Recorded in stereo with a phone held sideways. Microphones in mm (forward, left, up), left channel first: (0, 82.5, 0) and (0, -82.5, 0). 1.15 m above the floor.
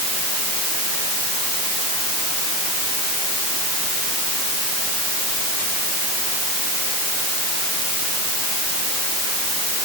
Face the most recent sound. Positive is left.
No sound to turn to.